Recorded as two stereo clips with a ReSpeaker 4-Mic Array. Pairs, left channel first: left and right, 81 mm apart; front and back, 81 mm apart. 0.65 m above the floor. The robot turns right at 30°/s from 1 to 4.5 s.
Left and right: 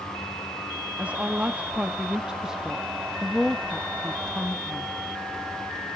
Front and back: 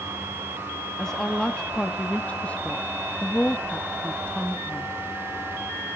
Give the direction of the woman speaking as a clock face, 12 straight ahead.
2 o'clock.